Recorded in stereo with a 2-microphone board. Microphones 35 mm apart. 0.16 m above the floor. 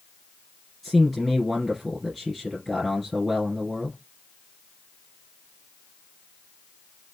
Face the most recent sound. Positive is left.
turn(degrees=5)  # may be behind; listen again after turning